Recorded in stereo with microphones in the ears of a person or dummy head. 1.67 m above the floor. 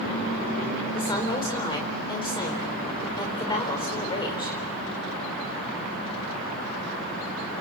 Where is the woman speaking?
20° left (ahead or behind), 5 m.